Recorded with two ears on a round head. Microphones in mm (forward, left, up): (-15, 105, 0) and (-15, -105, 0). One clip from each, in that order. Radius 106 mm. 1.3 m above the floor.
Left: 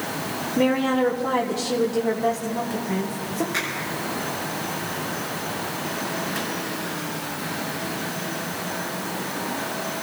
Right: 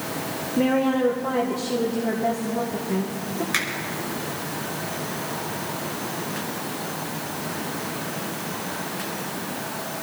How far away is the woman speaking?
About 1.2 m.